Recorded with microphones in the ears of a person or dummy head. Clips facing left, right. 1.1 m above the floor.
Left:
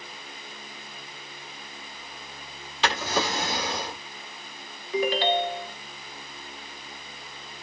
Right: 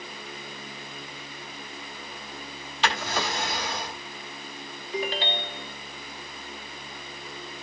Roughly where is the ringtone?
Left.